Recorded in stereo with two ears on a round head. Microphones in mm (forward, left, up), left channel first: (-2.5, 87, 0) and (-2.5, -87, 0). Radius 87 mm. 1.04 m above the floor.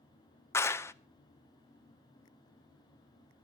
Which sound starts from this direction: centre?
A clap, at 0.5 s.